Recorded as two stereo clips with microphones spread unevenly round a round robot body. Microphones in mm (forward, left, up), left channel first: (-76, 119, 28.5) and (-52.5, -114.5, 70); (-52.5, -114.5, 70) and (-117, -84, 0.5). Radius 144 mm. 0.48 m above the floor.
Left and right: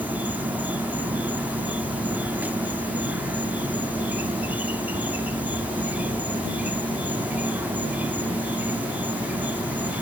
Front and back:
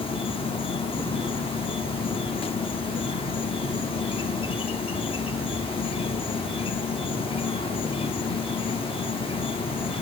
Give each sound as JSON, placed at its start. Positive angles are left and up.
{"t": 0.0, "sound": "an insect", "azimuth_deg": 15}